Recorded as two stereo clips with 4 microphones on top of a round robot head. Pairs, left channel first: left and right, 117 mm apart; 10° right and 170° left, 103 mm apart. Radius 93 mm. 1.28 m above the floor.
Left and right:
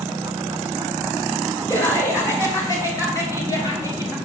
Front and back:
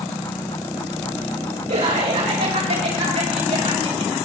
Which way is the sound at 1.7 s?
155° left.